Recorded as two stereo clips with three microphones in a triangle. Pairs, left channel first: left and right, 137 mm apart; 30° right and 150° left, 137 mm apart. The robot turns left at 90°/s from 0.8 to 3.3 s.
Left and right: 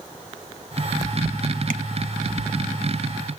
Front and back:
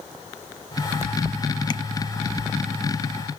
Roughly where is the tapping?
Right.